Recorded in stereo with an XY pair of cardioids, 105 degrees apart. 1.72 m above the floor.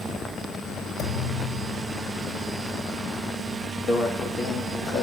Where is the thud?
50° left, 4 m.